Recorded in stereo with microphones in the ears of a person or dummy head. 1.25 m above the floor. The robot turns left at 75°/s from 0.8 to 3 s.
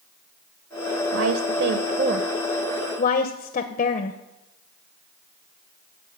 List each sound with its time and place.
1.1 s a woman speaking: 75° right (ahead or behind), 0.8 m; by 4.2 s 40° left (ahead or behind), 0.8 m